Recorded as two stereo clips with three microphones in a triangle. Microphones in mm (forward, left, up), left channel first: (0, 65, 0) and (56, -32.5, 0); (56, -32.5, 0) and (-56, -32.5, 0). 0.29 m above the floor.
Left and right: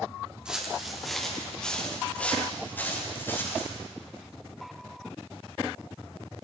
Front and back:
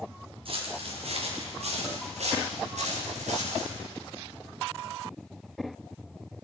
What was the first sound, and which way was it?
Footsteps, 145° right.